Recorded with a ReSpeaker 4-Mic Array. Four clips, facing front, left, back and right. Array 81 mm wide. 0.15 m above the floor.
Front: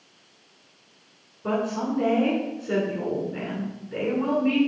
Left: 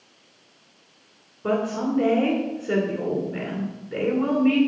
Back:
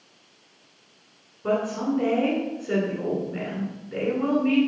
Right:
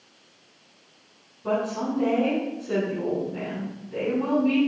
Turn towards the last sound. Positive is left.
turn(degrees=100)